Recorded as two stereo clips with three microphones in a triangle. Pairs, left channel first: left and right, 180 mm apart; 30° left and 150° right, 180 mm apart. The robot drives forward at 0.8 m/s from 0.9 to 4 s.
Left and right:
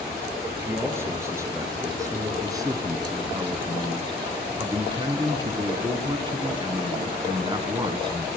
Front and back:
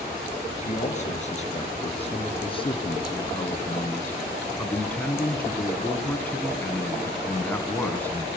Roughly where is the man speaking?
Ahead.